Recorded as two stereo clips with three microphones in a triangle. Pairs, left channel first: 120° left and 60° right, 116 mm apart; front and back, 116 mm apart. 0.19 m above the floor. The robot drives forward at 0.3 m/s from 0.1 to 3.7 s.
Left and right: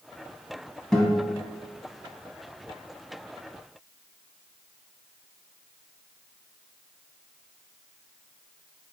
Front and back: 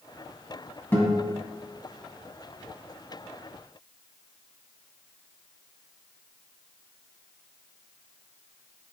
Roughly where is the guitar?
Ahead left.